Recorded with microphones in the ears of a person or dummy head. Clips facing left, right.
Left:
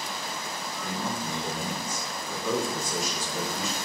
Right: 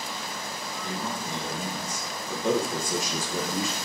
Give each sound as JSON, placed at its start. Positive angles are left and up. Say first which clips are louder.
{"t": 0.8, "sound": "a man speaking", "louder": "left 1 dB", "side_deg": 5, "distance_m": 2.5}